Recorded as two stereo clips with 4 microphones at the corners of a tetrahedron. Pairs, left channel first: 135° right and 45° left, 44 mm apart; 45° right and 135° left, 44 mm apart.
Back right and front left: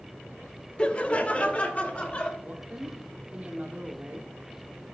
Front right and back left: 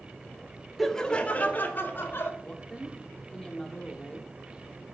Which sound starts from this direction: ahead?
A woman speaking, at 2.4 s.